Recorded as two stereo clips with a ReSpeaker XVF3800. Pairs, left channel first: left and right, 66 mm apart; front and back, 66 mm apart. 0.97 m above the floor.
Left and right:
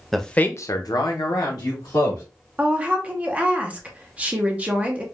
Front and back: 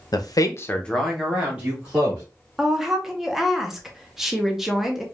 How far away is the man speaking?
About 0.7 m.